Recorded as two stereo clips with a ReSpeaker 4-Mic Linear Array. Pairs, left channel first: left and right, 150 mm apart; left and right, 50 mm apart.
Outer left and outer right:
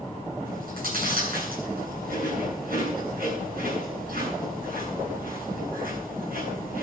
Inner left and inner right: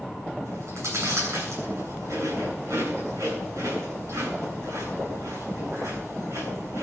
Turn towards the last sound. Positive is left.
turn(degrees=-80)